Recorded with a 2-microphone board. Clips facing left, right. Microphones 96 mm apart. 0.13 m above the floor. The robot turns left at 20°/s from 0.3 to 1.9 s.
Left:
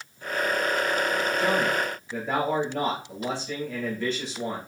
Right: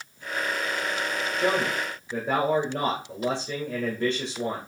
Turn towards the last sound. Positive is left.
turn(degrees=-25)  # may be behind; listen again after turning